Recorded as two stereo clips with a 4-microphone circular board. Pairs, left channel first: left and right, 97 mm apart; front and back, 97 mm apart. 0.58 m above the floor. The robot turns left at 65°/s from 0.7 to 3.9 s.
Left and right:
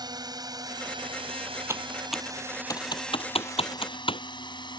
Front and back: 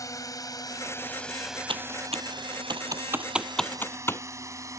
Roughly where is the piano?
I don't hear a piano.